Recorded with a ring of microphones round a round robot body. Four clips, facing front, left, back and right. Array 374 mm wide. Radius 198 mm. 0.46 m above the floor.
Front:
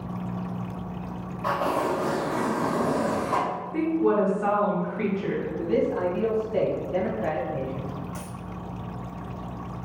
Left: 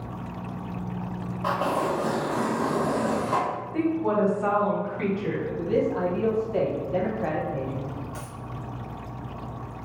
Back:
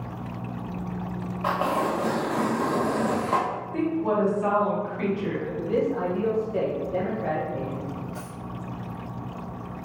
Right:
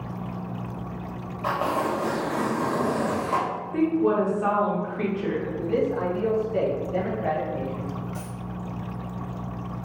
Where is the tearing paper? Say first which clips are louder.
Even, even; 160° right, 1.0 m.